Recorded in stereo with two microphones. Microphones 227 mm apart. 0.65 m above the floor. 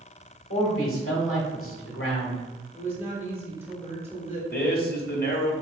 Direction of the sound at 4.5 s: 45° left (ahead or behind).